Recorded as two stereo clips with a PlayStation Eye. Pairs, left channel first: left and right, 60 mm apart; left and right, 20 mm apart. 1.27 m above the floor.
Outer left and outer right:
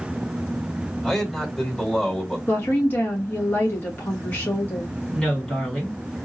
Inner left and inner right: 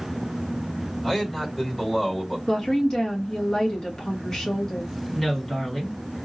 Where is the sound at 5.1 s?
15° left (ahead or behind), 2.5 m.